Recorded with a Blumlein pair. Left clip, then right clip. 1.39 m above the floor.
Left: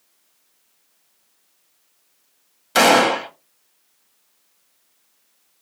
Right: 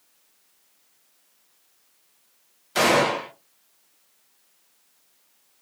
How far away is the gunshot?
About 1.1 m.